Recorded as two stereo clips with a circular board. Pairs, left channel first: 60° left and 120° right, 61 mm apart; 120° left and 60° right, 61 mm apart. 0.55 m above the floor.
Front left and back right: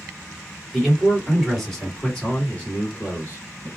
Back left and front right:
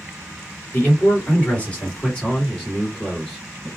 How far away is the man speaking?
About 1.6 m.